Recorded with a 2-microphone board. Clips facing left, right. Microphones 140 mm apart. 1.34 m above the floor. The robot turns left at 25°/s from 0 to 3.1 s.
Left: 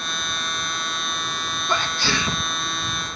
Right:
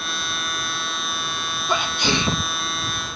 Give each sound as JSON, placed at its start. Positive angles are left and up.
{"t": 1.7, "sound": "a sneeze", "side_deg": -10}